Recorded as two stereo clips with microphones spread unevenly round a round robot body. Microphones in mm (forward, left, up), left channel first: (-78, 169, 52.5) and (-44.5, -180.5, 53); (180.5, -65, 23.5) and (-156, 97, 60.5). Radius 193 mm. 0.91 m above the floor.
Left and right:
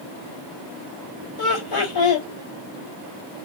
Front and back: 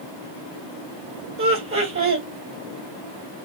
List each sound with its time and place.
1.4 s laughter: 90° left, 1.5 m